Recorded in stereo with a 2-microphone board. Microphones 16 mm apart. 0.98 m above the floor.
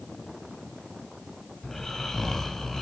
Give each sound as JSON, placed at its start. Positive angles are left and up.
{"t": 1.6, "sound": "snoring", "side_deg": 25, "distance_m": 3.0}